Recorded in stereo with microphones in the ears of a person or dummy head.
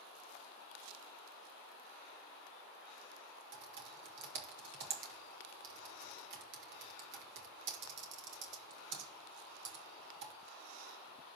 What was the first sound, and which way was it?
Typing on a keyboard, 70° right (ahead or behind).